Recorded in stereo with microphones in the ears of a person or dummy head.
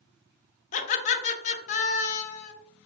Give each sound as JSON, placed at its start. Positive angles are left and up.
{"t": 0.7, "sound": "laughter", "side_deg": 40, "distance_m": 0.7}